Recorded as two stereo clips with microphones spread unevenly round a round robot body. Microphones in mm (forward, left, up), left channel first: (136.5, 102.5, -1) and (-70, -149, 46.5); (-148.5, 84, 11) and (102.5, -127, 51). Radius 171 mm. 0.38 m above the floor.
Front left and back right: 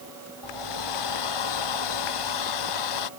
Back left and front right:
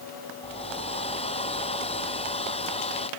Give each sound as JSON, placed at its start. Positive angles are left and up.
{"t": 0.4, "sound": "a hair dryer", "azimuth_deg": 65}